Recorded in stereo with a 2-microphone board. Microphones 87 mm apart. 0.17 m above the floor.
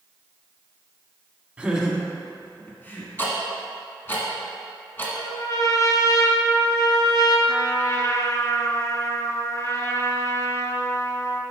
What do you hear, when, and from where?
1.6 s laughter: 20° right (ahead or behind), 1.0 m; by 3.1 s 25° left (ahead or behind), 1.5 m
3.2 s ticking: 25° left (ahead or behind), 1.7 m
5.2 s a trumpet: 45° left (ahead or behind), 1.1 m
7.5 s a trumpet: 40° left (ahead or behind), 0.8 m